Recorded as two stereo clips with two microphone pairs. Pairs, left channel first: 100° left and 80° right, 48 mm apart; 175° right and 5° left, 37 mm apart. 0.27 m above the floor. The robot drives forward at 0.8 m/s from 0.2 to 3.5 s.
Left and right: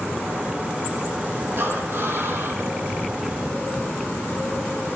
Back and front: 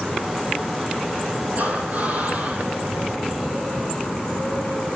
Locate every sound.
1.6 s breathing: 40° right, 5 m; by 2.7 s 45° right, 4.5 m